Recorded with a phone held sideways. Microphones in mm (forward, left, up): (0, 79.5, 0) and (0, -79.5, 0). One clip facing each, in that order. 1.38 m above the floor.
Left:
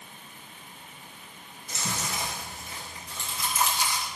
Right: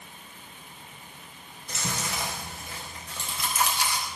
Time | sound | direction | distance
1.7 | chewing | 70° right (ahead or behind) | 3.5 m